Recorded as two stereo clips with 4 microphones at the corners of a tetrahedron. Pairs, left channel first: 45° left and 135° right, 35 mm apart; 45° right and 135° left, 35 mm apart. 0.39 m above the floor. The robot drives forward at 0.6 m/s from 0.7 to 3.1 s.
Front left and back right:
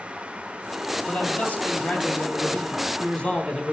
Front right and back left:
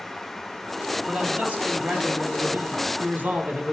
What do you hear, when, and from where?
1.1 s a man speaking: 80° left, 3 m; by 3.7 s 105° left, 3 m